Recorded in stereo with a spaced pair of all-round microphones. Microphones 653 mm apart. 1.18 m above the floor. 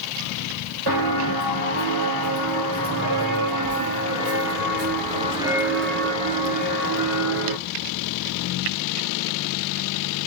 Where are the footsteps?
35° right (ahead or behind), 3 m; by 7.6 s 30° left (ahead or behind), 1.3 m.